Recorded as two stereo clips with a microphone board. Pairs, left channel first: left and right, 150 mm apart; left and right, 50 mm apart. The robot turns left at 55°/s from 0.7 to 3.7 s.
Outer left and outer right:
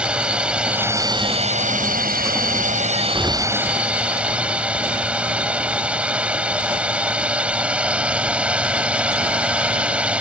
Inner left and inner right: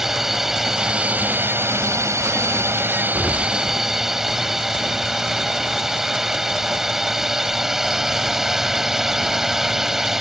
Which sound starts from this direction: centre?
An explosion, at 3.1 s.